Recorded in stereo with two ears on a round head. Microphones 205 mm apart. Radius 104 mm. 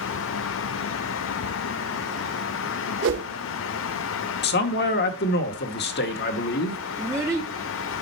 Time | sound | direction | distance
3.0 | a whoosh | 55° right (ahead or behind) | 0.9 m
4.4 | a man speaking | 45° left (ahead or behind) | 1.0 m
7.0 | a child speaking | 10° right (ahead or behind) | 0.8 m